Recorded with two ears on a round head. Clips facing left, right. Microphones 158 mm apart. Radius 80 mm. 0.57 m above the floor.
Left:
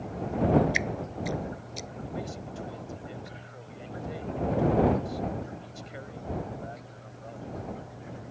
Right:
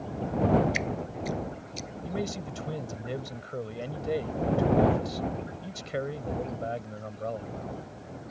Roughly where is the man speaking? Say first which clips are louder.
Right 5 dB; right.